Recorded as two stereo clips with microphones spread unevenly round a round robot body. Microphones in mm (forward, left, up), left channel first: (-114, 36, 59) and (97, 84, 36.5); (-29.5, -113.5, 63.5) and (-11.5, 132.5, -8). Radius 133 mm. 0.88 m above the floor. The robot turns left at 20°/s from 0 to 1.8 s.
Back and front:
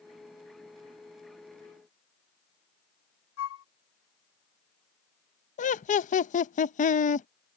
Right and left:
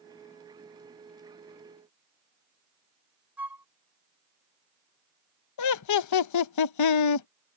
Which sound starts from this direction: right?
Laughter, at 5.6 s.